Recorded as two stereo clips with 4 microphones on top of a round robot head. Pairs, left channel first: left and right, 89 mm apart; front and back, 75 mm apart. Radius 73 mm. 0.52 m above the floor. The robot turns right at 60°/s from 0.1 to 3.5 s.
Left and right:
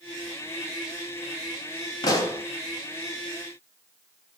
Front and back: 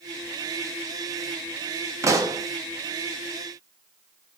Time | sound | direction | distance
2.0 | a pop | 135° left | 0.5 m